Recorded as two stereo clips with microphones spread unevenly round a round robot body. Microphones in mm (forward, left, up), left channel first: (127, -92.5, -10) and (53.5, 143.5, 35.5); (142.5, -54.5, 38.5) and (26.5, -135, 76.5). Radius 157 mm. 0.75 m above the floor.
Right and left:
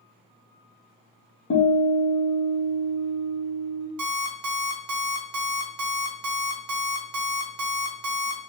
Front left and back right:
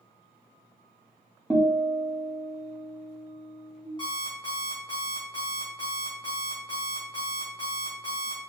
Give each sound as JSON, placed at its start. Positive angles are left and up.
{"t": 1.5, "sound": "a guitar", "azimuth_deg": -45, "distance_m": 1.8}
{"t": 4.0, "sound": "an alarm clock", "azimuth_deg": 110, "distance_m": 1.0}